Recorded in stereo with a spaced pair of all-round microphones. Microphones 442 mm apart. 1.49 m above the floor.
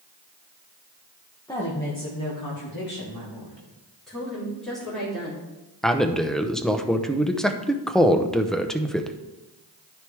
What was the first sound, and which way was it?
A woman speaking, 10° left (ahead or behind).